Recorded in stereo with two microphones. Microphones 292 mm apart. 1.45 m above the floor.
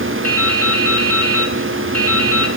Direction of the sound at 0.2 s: 50° right (ahead or behind).